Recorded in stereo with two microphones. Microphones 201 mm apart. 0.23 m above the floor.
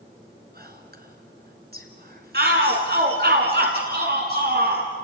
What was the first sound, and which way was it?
Whispering, 50° right (ahead or behind).